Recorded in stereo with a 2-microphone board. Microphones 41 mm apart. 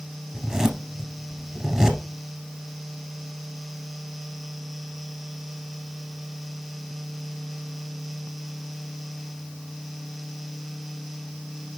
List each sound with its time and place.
0.3 s a zipper: 20° right (ahead or behind), 1.9 m